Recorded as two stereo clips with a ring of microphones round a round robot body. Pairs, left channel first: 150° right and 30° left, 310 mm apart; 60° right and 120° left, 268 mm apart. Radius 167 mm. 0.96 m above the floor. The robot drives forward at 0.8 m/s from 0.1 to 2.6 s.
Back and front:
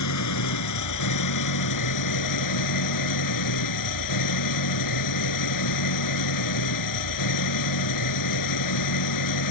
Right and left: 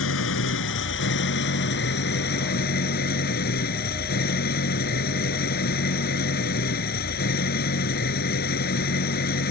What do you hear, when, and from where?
0.0 s an engine running: 110° right; by 9.5 s 125° right